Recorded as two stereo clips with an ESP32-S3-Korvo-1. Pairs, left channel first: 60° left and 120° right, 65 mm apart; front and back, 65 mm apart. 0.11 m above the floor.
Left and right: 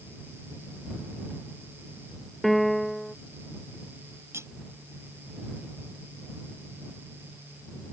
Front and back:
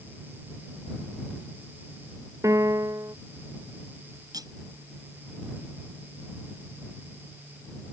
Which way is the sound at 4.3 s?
170° right.